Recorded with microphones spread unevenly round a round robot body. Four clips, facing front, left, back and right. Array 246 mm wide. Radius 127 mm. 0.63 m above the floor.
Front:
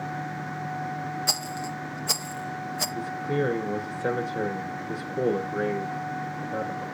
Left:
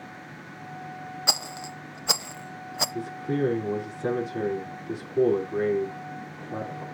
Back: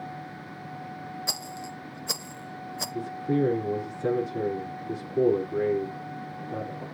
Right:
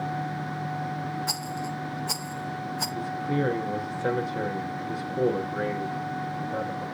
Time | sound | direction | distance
1.3 | a rattle | 100° left | 0.6 m
3.0 | a man speaking | 145° left | 6 m